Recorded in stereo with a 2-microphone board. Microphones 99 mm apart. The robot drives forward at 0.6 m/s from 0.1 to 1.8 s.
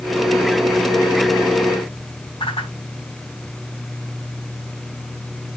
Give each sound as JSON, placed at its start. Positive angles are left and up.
{"t": 2.4, "sound": "a whoosh", "side_deg": 65, "distance_m": 3.5}